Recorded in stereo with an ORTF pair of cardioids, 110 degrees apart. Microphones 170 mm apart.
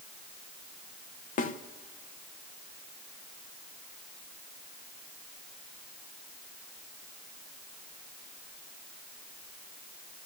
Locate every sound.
1.4 s a snare drum: 55° left, 1.1 m